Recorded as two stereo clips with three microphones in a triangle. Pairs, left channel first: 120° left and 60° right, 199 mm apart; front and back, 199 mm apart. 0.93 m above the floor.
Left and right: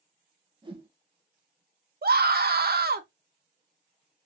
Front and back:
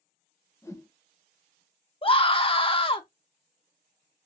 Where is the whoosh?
55° right, 0.7 m.